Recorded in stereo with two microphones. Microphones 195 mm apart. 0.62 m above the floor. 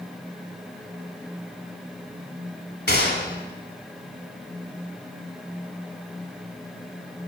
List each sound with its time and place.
2.9 s a gunshot: 65° left (ahead or behind), 1.9 m